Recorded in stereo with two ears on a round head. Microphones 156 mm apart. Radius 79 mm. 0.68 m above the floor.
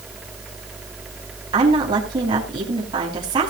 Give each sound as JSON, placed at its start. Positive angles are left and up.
{"t": 1.5, "sound": "a woman speaking", "side_deg": -25, "distance_m": 4.5}